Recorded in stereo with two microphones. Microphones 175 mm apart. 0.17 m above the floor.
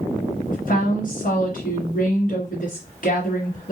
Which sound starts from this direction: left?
A woman speaking, at 0.5 s.